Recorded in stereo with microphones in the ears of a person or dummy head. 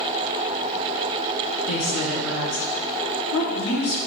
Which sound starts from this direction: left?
A woman speaking, at 1.7 s.